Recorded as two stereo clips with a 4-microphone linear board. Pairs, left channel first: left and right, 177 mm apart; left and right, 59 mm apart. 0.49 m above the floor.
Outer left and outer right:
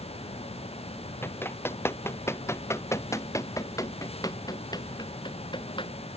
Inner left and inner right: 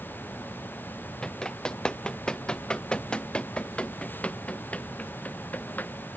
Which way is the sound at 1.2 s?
15° left (ahead or behind).